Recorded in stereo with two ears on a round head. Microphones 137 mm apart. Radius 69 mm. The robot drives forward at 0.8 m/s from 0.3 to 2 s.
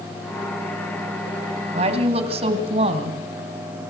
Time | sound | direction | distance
1.7 | a woman speaking | 45° right (ahead or behind) | 2.5 m